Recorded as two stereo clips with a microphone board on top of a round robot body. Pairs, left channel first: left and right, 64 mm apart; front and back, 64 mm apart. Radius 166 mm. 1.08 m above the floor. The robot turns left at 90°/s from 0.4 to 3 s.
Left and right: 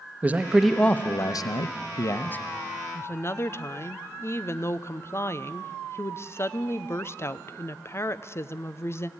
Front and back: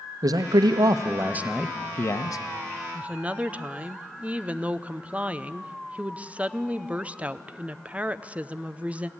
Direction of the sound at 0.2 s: 160° right.